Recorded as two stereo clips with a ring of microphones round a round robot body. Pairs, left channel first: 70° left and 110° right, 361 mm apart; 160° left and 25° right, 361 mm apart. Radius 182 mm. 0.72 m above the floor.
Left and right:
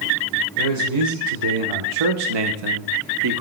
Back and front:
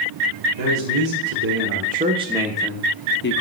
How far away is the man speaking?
About 2 m.